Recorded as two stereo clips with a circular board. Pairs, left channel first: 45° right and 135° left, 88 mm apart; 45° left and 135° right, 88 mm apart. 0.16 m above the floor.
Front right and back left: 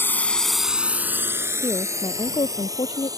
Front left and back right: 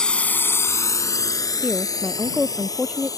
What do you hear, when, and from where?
0.0 s a drone: 25° right; by 3.2 s 90° left
1.6 s a woman speaking: 60° right